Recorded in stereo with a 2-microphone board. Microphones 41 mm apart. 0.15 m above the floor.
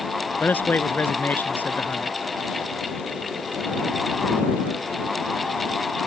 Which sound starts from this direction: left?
A man speaking, at 0.4 s.